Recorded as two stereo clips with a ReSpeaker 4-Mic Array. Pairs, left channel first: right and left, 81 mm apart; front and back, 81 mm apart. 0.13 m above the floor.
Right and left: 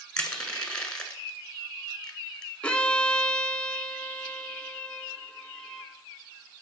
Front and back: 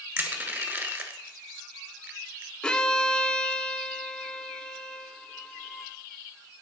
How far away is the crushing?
About 1.2 m.